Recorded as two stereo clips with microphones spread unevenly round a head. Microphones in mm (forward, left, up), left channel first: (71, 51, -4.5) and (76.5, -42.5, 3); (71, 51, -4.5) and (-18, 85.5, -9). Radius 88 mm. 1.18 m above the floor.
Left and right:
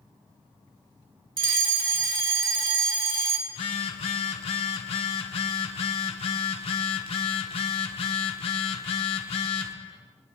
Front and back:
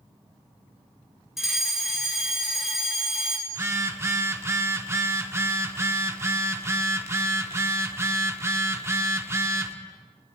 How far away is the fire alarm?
About 1.6 m.